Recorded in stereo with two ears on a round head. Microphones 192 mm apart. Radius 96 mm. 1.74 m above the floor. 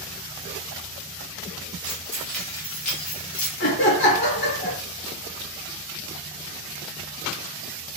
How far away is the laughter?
About 1.2 m.